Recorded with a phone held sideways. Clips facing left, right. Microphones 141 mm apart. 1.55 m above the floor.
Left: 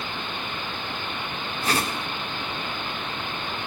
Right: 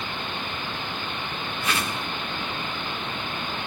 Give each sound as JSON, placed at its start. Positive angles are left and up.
{"t": 1.6, "sound": "a whoosh", "side_deg": 40, "distance_m": 1.8}